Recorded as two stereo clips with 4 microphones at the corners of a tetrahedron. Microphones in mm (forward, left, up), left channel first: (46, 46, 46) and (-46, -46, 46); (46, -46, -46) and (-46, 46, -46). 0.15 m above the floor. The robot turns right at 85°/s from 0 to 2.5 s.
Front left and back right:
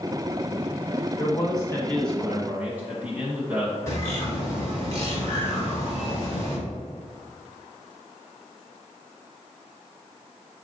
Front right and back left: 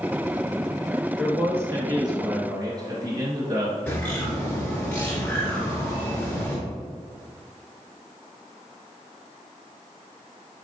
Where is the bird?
10° left, 1.9 m.